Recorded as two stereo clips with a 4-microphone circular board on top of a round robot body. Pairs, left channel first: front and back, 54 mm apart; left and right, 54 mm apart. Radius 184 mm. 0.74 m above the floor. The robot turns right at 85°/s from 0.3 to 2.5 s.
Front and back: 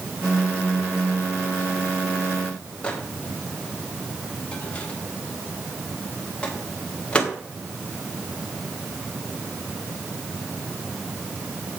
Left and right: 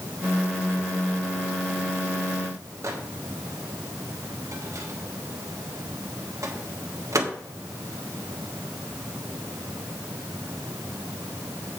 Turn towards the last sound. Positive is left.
turn(degrees=-70)